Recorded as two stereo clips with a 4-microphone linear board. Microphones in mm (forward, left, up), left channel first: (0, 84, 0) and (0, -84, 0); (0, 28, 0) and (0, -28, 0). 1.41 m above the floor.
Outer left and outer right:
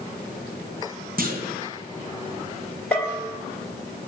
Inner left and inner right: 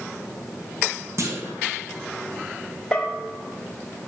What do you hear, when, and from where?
1.2 s a clunk: 60° right (ahead or behind), 1.0 m
2.9 s a bell: 10° left (ahead or behind), 1.8 m